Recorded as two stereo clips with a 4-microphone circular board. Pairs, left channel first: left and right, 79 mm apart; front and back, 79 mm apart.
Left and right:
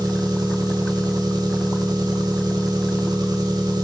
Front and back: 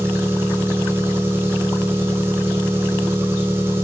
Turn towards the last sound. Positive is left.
turn(degrees=-120)